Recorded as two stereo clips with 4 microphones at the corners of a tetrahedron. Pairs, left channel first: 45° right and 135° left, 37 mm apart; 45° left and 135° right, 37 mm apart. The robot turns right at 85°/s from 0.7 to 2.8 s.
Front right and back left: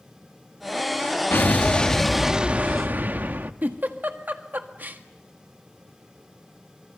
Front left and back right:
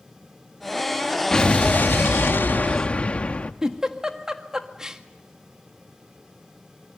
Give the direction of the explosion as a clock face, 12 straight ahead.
1 o'clock.